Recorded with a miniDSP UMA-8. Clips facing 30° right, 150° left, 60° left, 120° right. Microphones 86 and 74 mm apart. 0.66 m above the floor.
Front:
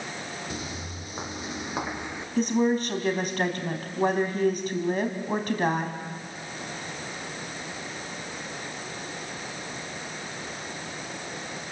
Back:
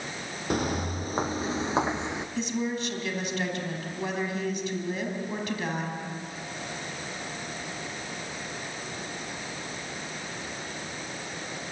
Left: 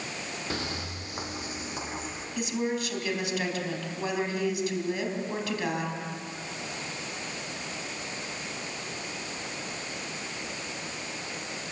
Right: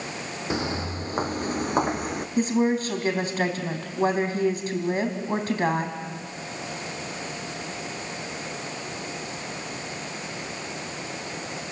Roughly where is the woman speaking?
Right.